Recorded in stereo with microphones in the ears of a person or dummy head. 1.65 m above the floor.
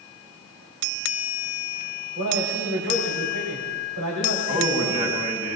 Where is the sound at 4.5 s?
30° right (ahead or behind), 6 m.